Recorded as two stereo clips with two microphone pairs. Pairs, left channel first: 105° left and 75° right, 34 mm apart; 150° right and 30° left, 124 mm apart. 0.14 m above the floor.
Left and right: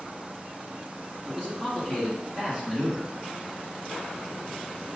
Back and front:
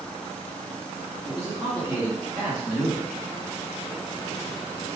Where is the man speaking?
65° left, 1.3 m; by 3.1 s 40° right, 1.5 m.